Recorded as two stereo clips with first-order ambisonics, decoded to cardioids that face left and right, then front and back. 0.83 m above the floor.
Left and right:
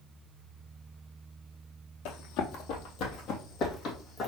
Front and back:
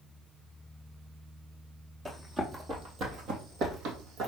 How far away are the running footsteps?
About 2.0 m.